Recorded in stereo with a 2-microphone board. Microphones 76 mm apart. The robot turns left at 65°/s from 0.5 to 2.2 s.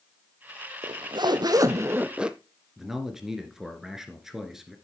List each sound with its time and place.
0.8 s a zipper: 80° right, 0.6 m; by 2.4 s 165° right, 0.6 m
2.8 s a man speaking: 5° right (ahead or behind), 1.5 m